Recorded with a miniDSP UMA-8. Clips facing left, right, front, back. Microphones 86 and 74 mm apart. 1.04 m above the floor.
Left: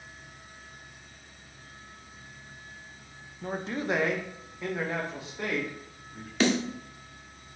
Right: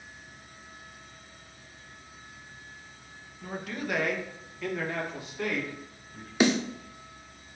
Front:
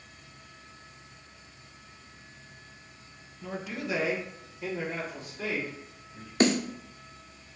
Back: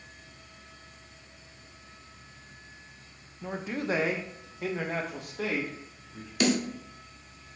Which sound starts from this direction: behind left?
A man speaking, at 3.4 s.